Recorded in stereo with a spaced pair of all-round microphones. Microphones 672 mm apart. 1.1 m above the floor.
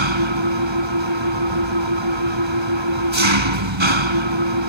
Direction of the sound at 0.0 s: 40° right (ahead or behind).